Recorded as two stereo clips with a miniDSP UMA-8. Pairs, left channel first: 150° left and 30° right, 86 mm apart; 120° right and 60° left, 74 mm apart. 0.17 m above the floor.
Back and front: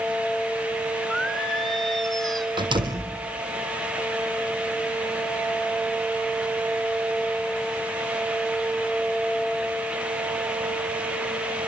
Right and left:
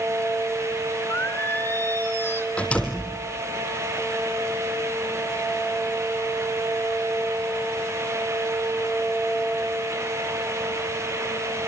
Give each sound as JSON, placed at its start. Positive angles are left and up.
{"t": 1.1, "sound": "singing", "azimuth_deg": -125, "distance_m": 1.4}
{"t": 2.6, "sound": "a door slam", "azimuth_deg": -45, "distance_m": 4.0}